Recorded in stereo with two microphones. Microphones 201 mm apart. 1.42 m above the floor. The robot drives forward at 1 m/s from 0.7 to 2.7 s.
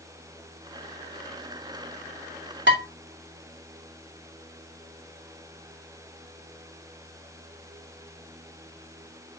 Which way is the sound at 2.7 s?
75° right (ahead or behind).